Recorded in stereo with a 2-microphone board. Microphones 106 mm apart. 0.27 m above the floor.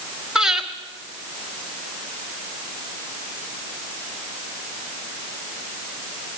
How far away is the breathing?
About 1.7 m.